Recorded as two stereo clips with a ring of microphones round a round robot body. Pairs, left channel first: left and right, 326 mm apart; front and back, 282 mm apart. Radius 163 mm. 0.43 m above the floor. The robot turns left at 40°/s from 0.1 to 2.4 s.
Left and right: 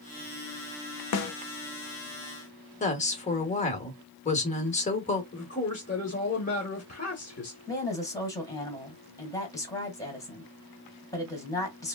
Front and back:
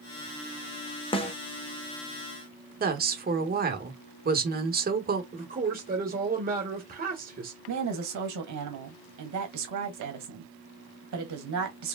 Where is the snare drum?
70° left, 0.8 m; by 1.3 s 60° left, 0.8 m.